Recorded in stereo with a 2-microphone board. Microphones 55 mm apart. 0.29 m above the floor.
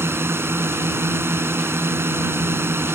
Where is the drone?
50° right (ahead or behind).